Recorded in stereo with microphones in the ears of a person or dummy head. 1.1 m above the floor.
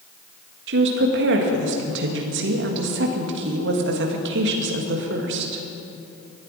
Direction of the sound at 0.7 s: 60° right (ahead or behind).